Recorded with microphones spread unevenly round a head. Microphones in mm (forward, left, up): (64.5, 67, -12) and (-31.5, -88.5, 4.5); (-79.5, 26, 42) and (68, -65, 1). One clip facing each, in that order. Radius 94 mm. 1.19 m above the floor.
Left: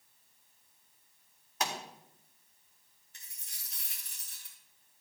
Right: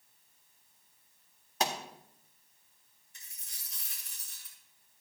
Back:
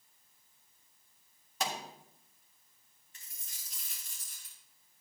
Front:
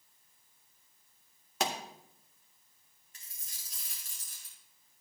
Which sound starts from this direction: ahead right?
A pop, at 1.6 s.